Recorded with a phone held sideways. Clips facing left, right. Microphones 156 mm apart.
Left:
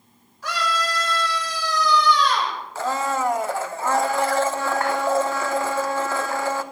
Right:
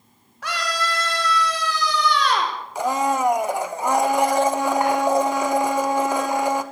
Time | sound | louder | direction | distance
0.4 | a scream | left 1 dB | 75° right (ahead or behind) | 4.5 m
2.8 | a blender | right 3 dB | 15° right (ahead or behind) | 0.9 m